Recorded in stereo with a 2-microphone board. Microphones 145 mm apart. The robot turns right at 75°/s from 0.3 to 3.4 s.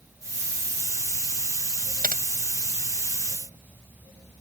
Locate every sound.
2.0 s typing on a keyboard: 85° right; by 2.2 s 70° right (ahead or behind)